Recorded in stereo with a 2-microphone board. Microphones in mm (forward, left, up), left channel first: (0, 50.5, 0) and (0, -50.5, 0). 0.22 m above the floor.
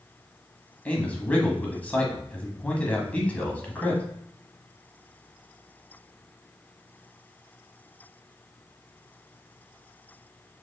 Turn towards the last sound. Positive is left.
turn(degrees=15)  # may be behind; listen again after turning